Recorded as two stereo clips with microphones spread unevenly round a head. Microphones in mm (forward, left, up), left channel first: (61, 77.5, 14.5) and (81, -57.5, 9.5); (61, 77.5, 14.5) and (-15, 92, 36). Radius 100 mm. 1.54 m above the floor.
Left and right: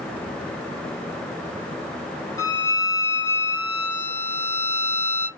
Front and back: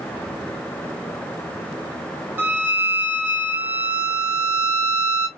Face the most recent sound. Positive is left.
turn(degrees=155)